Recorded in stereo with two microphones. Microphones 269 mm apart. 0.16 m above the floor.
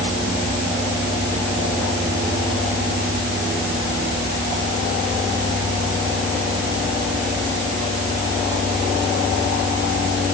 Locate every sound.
Only background noise.